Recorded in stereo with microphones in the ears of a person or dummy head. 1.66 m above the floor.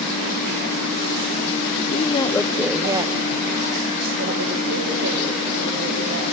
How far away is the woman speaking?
About 0.7 m.